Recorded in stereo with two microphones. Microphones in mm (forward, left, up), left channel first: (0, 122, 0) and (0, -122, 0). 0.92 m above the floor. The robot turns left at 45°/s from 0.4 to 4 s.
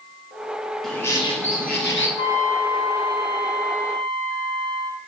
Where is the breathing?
No breathing in this recording.